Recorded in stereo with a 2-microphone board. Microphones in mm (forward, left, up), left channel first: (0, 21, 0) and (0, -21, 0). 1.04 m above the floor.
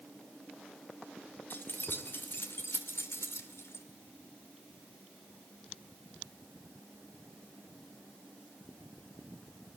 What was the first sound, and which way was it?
Keys jangling, 50° left (ahead or behind).